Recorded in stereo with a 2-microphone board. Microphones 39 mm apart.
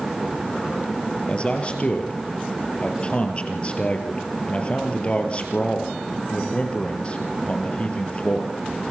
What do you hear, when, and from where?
1.3 s a man speaking: 30° left (ahead or behind), 3.5 m